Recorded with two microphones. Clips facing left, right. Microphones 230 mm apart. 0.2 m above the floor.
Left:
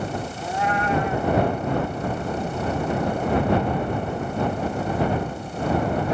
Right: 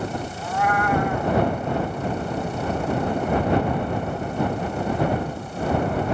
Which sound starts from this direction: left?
A cat meowing, at 0.4 s.